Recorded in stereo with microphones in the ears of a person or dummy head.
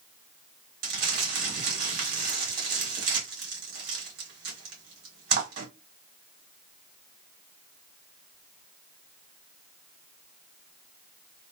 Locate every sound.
0.8 s crumpling: 65° right (ahead or behind), 1.5 m